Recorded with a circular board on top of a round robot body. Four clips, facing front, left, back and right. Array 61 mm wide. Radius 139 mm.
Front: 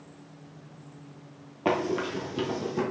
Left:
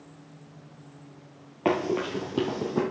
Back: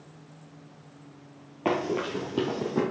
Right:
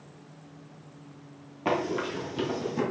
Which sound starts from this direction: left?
Running footsteps, at 1.6 s.